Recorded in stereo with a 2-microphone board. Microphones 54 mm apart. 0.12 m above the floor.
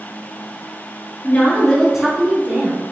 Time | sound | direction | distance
1.2 | a woman speaking | 30° left (ahead or behind) | 1.4 m